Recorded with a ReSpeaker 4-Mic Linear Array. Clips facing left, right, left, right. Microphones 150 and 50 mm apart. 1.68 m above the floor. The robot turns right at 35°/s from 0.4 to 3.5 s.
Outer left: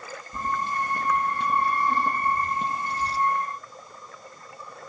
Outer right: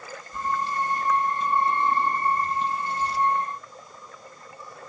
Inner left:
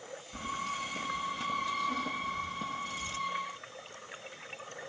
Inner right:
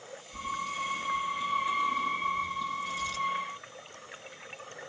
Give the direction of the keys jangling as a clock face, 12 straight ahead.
10 o'clock.